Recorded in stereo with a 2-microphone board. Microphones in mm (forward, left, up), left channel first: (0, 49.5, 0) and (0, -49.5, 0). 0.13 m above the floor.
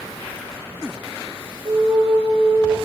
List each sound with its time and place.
1.6 s a flute: 55° right (ahead or behind), 1.2 m